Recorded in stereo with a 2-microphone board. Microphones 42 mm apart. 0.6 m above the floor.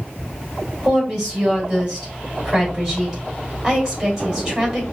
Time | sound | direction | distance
0.8 | a woman speaking | 15° right (ahead or behind) | 3 m